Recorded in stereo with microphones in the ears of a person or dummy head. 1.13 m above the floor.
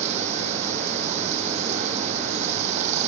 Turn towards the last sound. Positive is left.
turn(degrees=-40)  # may be behind; listen again after turning